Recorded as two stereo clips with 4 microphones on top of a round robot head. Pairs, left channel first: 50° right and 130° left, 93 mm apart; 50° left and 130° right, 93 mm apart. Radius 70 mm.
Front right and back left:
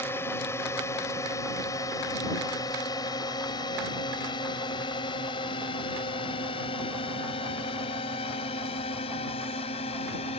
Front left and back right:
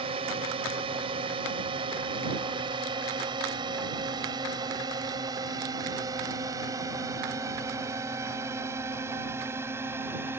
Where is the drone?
115° right; by 10.4 s 65° right.